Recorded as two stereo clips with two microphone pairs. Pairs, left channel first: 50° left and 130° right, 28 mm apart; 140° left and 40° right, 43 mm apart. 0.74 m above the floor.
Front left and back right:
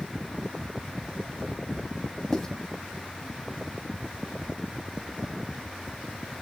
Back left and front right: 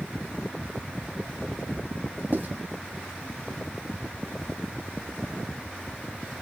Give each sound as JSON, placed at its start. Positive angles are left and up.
{"t": 2.3, "sound": "writing", "azimuth_deg": -25, "distance_m": 1.4}